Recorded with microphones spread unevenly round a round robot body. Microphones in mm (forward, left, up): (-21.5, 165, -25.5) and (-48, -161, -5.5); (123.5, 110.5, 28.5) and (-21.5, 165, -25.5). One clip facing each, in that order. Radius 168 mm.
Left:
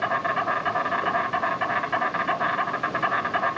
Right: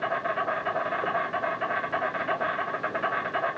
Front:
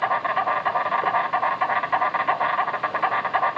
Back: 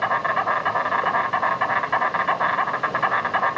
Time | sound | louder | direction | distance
0.0 | an insect | left 2 dB, even | 80° left | 1.1 m